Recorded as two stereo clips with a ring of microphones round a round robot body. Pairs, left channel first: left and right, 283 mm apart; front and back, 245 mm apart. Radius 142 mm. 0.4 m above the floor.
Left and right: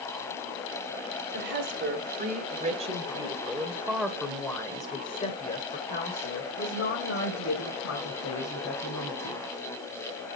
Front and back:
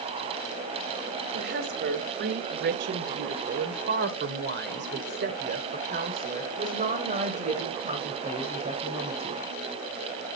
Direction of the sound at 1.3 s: 130° right.